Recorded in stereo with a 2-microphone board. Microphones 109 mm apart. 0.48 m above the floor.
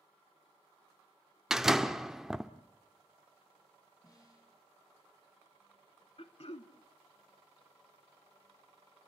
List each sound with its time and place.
1.5 s a door slam: 5° right (ahead or behind), 0.7 m
4.0 s a snare drum: 35° left (ahead or behind), 5.5 m
6.2 s throat clearing: 60° left (ahead or behind), 0.9 m